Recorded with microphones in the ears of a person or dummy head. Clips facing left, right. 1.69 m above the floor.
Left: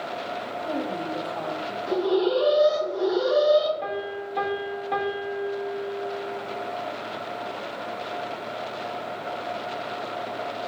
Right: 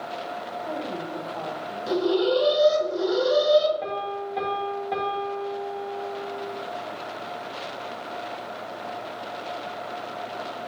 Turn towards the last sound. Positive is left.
turn(degrees=0)  # may be behind; listen again after turning